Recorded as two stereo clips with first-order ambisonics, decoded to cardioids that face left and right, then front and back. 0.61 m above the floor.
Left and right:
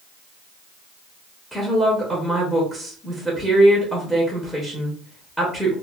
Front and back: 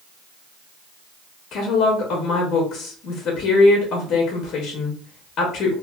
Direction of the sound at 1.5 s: Straight ahead.